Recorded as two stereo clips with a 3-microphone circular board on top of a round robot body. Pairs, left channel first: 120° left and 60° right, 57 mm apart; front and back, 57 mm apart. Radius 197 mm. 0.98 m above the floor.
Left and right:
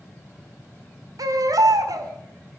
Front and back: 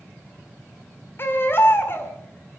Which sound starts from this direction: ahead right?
A baby crying, at 1.2 s.